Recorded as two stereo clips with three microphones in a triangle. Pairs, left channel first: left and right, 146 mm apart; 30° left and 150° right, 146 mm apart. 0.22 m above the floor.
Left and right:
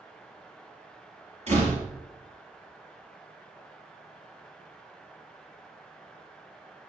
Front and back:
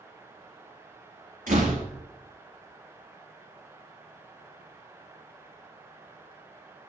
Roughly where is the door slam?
Behind right.